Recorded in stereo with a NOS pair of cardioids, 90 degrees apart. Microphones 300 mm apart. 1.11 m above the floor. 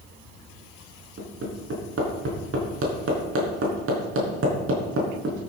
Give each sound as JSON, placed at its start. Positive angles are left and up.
{"t": 1.2, "sound": "hammering", "azimuth_deg": -45, "distance_m": 3.5}